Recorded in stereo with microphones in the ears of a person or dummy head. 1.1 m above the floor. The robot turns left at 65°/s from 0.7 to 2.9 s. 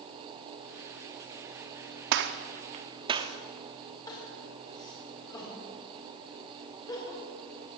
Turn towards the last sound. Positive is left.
turn(degrees=20)  # may be behind; listen again after turning